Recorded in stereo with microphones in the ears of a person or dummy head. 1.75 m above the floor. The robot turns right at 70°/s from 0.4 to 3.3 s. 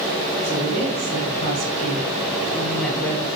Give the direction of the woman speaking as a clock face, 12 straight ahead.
6 o'clock.